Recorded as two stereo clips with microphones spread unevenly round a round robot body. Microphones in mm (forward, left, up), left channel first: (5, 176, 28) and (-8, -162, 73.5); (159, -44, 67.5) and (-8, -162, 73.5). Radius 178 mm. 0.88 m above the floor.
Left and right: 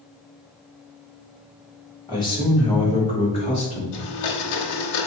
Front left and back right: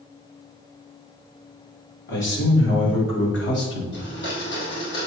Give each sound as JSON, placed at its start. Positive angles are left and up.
{"t": 2.1, "sound": "a man speaking", "azimuth_deg": 10, "distance_m": 3.0}
{"t": 3.9, "sound": "a blender", "azimuth_deg": 80, "distance_m": 1.1}